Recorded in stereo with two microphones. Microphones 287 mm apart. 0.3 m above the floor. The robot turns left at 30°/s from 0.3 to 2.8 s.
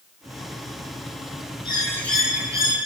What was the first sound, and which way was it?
A bird, 15° left.